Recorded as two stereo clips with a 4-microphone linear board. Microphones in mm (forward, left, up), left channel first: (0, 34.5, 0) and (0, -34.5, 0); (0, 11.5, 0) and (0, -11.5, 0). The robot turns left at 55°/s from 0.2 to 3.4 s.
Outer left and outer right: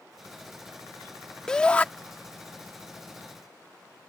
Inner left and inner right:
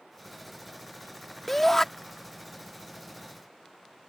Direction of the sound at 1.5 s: 10° left (ahead or behind).